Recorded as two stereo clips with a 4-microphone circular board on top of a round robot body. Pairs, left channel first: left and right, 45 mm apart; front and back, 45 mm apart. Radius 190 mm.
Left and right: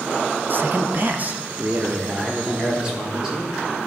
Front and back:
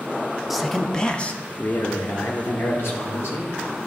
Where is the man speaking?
95° right, 1.0 m; by 3.5 s 15° right, 2.5 m.